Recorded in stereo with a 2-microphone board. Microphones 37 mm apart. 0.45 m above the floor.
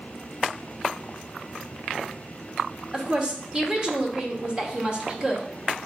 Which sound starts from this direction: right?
A woman speaking, at 2.9 s.